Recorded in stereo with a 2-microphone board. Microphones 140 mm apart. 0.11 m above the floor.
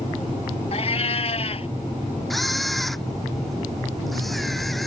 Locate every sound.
0.7 s a cat meowing: 50° left (ahead or behind)
2.3 s a camera shutter: centre (ahead or behind)